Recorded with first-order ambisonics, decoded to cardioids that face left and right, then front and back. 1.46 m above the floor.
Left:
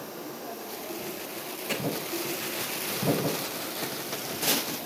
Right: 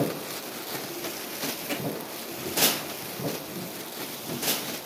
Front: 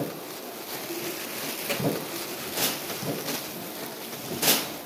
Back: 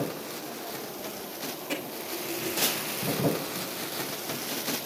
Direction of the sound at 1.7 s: 5° right.